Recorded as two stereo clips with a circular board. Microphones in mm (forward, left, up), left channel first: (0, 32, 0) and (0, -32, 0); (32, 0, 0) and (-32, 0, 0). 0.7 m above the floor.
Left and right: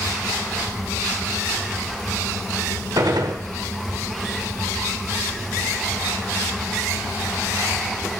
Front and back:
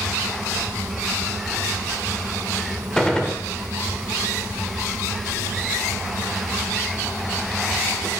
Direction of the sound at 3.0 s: 80° right.